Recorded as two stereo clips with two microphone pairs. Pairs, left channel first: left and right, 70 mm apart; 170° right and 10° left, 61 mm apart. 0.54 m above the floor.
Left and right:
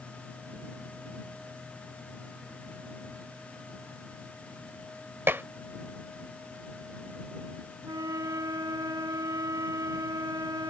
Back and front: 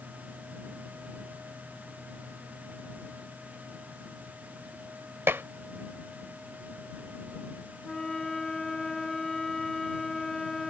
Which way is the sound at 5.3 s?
40° right.